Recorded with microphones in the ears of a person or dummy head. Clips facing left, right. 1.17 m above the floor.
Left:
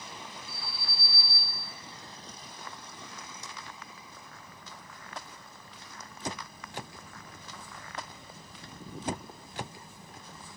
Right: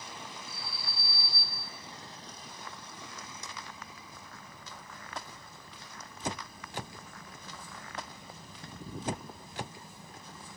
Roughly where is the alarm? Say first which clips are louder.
Left 1 dB; left.